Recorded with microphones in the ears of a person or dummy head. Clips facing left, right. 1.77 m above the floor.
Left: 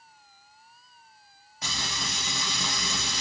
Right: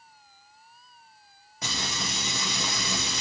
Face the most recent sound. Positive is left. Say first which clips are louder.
# right 2 dB
turn(degrees=-70)  # may be behind; listen again after turning